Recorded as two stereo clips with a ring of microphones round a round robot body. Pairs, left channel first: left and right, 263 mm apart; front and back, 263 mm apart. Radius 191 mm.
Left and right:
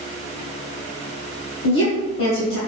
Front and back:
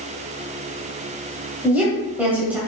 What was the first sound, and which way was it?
A woman speaking, 100° left.